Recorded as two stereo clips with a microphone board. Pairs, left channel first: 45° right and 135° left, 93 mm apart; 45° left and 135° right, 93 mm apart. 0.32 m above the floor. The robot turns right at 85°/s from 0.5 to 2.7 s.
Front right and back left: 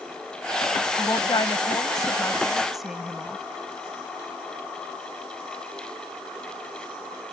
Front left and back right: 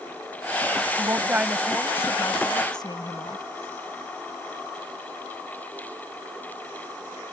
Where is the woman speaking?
100° right; by 3.4 s 45° left.